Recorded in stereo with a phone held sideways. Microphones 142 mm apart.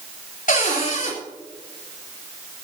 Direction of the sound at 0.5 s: 65° left (ahead or behind).